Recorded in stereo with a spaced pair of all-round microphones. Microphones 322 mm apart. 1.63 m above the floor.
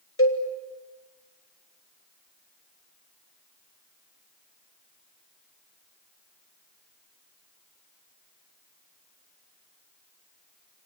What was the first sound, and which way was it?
A cowbell, 40° left (ahead or behind).